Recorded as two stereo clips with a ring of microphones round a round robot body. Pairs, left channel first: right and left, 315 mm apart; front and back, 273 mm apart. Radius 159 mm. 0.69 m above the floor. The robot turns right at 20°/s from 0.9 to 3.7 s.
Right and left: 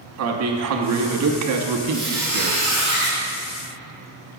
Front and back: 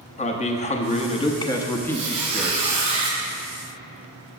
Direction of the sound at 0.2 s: 60° left.